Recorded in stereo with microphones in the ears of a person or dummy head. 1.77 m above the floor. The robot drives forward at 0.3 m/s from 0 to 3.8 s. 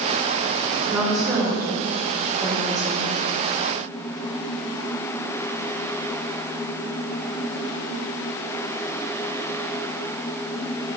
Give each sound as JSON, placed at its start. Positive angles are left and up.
{"t": 0.9, "sound": "a woman speaking", "side_deg": 0, "distance_m": 1.6}